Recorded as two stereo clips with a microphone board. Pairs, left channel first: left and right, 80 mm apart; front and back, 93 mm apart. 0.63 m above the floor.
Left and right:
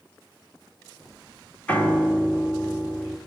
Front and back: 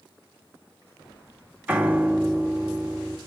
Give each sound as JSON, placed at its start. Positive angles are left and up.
{"t": 1.7, "sound": "a piano", "azimuth_deg": 135, "distance_m": 1.2}